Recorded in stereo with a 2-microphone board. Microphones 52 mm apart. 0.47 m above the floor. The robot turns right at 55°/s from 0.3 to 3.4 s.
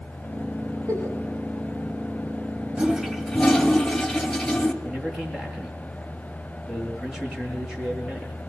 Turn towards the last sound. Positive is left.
turn(degrees=-10)  # may be behind; listen again after turning